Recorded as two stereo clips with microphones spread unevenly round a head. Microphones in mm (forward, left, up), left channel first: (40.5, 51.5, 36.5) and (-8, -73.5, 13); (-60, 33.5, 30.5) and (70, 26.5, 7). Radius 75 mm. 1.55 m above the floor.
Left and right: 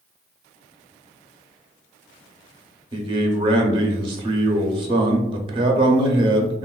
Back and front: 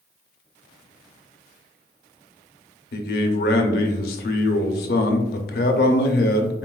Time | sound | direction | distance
2.9 | a man speaking | 175° right | 0.5 m